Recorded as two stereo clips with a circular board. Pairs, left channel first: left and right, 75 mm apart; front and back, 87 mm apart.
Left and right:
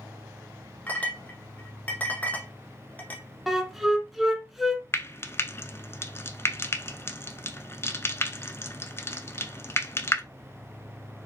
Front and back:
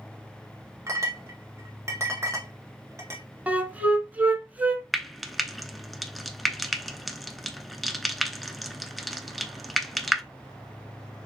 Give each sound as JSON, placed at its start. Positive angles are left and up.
{"t": 0.9, "sound": "a clink", "azimuth_deg": 145, "distance_m": 0.9}
{"t": 3.5, "sound": "a flute", "azimuth_deg": -170, "distance_m": 0.7}
{"t": 4.9, "sound": "frying", "azimuth_deg": 90, "distance_m": 0.5}